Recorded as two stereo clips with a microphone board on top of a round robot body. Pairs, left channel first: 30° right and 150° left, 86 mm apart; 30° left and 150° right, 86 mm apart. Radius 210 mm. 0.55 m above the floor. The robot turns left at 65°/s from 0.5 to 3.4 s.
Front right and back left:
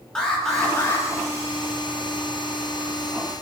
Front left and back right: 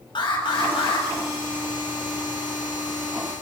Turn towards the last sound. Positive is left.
turn(degrees=-140)